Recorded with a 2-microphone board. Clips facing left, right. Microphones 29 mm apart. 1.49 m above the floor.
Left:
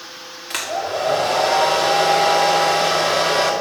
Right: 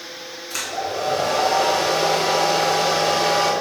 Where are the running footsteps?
No running footsteps in this recording.